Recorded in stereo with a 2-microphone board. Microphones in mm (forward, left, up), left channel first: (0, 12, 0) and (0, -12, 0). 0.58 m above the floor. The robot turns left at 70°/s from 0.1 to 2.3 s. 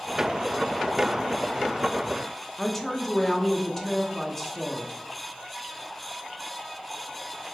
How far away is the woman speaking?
About 0.6 m.